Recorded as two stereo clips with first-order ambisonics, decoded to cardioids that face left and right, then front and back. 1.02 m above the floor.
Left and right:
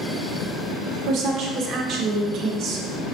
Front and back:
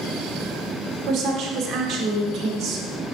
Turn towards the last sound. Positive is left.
turn(degrees=-130)